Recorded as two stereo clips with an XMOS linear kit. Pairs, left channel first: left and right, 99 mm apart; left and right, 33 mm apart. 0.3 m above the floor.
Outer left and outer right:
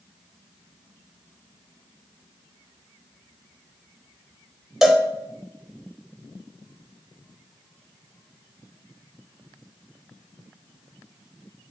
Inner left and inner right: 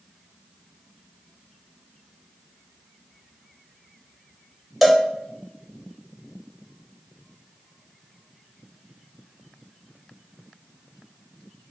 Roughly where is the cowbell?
Centre.